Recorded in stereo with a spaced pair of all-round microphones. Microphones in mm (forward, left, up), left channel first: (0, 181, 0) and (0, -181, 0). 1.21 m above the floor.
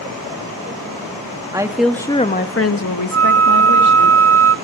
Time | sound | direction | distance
1.5 | a woman speaking | 10° right (ahead or behind) | 1.7 m
3.1 | a flute | 40° right (ahead or behind) | 0.6 m